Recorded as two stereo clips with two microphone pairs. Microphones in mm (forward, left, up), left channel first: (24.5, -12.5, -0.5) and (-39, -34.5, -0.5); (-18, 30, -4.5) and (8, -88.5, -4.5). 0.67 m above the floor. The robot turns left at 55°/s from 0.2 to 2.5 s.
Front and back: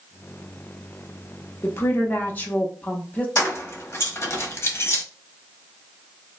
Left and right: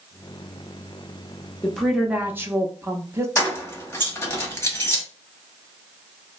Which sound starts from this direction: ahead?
A woman speaking, at 1.6 s.